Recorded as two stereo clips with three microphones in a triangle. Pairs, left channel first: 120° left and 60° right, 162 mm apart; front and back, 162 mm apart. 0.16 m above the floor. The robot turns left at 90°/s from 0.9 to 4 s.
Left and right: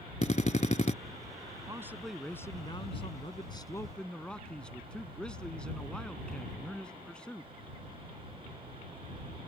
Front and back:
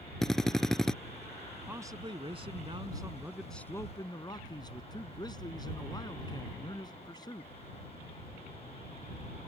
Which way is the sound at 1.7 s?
110° right.